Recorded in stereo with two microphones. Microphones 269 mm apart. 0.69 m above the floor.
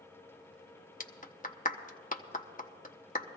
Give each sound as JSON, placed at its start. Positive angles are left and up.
{"t": 1.0, "sound": "a clap", "side_deg": 35, "distance_m": 0.8}